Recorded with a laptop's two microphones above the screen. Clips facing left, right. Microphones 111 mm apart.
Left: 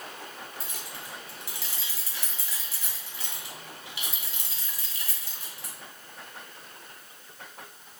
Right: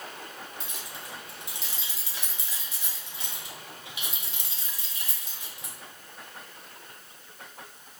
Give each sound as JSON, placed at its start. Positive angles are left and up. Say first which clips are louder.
{"t": 0.6, "sound": "keys jangling", "louder": "even", "side_deg": -20, "distance_m": 1.3}